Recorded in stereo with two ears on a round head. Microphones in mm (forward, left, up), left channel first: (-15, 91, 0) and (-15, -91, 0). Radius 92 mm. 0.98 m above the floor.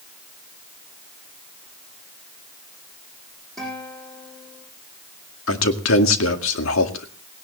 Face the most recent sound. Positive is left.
turn(degrees=70)  # may be behind; listen again after turning